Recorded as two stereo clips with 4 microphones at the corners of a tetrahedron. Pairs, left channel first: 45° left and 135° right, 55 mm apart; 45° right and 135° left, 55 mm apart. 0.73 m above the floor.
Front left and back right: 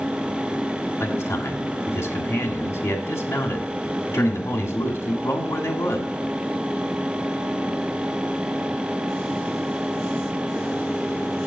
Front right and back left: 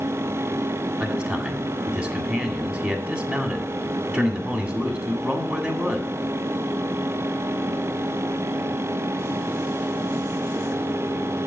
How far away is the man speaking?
About 1.8 m.